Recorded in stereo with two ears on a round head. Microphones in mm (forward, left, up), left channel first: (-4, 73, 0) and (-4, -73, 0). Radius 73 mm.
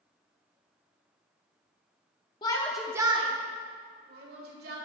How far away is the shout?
About 0.7 m.